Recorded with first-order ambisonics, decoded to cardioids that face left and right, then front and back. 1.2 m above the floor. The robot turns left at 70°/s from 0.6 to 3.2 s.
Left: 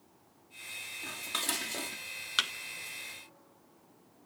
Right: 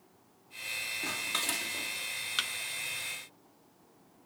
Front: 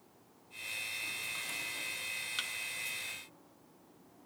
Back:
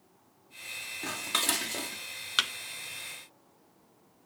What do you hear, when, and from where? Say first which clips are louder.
1.0 s dishes clattering: right 1 dB, back 8 dB; 155° right, 1.5 m; by 2.0 s 140° left, 1.5 m
2.4 s a thud: left 4 dB, back 13 dB; 160° left, 0.6 m; by 2.5 s 150° left, 0.6 m